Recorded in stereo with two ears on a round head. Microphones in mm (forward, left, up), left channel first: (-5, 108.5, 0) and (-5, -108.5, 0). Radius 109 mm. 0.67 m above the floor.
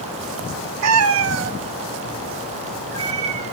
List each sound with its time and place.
0.8 s a cat meowing: 75° right (ahead or behind), 1.2 m; by 3.5 s 25° right (ahead or behind), 4.5 m